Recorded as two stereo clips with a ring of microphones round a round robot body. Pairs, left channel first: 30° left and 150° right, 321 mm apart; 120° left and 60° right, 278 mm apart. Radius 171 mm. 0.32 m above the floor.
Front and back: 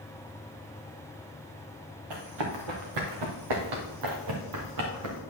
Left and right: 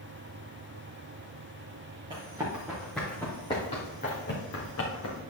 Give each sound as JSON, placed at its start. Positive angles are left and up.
{"t": 2.1, "sound": "running footsteps", "azimuth_deg": -135, "distance_m": 3.0}